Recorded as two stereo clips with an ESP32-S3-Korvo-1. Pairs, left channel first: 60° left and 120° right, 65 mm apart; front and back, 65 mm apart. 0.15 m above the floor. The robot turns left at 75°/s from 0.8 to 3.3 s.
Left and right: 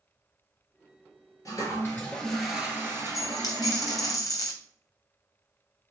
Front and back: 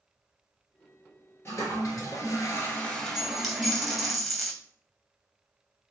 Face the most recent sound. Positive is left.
turn(degrees=90)